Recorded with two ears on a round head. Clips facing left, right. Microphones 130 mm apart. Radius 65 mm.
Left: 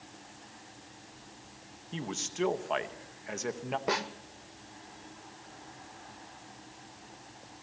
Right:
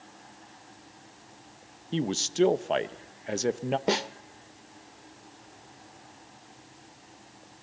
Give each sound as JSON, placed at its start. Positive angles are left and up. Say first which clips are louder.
{"t": 1.9, "sound": "a man speaking", "louder": "right 9 dB", "side_deg": -40, "distance_m": 0.8}
{"t": 3.9, "sound": "a snare drum", "louder": "right 3 dB", "side_deg": -30, "distance_m": 0.6}